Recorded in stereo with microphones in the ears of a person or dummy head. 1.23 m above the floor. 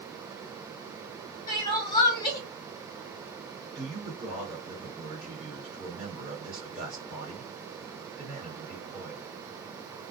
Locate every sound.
1.5 s crying: 25° left (ahead or behind), 1.6 m
3.8 s a man speaking: centre (ahead or behind), 1.6 m